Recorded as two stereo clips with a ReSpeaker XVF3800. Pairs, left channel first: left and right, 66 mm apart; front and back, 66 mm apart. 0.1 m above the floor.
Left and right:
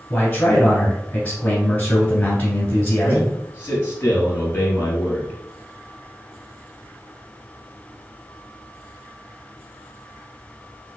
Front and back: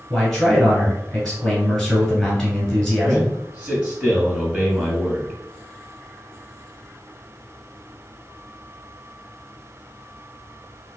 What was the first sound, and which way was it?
A man speaking, 85° left.